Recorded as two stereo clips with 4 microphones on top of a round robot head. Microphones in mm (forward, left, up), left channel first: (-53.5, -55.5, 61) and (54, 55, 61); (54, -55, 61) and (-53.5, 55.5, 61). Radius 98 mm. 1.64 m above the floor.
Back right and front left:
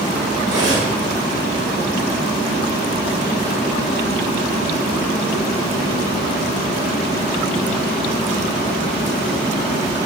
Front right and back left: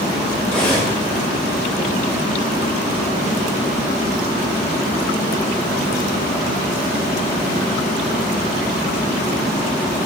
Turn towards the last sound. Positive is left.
turn(degrees=35)